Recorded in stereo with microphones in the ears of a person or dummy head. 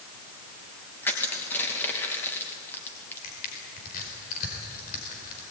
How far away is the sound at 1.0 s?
About 2.5 m.